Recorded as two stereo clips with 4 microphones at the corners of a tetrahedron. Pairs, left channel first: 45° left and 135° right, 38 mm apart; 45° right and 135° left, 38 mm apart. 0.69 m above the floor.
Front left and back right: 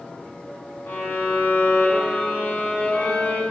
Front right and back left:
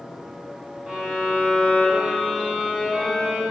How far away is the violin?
About 7 m.